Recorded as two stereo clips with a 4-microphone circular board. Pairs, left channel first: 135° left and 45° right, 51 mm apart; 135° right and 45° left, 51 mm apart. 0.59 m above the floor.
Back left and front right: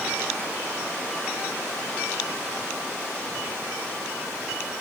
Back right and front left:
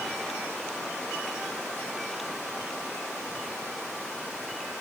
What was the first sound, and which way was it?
Only background noise.